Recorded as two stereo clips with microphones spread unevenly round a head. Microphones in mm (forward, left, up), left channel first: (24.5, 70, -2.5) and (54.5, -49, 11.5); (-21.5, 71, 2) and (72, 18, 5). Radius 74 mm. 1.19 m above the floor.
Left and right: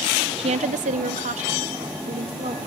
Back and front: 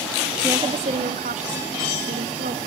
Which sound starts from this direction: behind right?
A woman speaking, at 0.4 s.